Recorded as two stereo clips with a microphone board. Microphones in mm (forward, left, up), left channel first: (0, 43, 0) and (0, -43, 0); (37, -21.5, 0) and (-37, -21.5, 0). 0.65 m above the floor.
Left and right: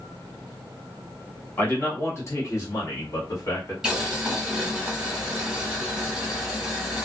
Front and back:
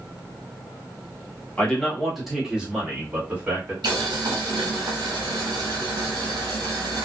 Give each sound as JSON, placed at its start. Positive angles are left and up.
{"t": 1.6, "sound": "a man speaking", "azimuth_deg": 55, "distance_m": 1.0}
{"t": 3.8, "sound": "boiling", "azimuth_deg": -170, "distance_m": 1.2}